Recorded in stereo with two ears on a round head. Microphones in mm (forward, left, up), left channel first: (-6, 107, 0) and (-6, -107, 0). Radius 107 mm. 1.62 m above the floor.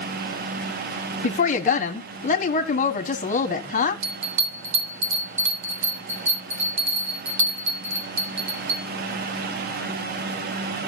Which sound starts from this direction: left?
A woman speaking, at 1.2 s.